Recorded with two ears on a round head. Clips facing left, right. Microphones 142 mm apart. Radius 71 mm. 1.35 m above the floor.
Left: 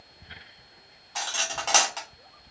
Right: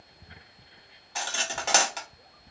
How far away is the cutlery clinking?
About 1.3 m.